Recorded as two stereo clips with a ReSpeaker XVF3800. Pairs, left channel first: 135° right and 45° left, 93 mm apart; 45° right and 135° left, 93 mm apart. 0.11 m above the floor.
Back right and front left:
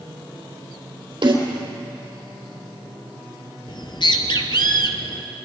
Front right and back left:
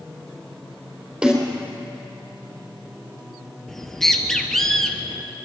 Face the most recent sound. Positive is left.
turn(degrees=-130)